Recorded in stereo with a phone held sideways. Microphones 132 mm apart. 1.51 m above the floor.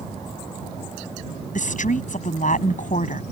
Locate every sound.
1.6 s a woman speaking: 70° left (ahead or behind)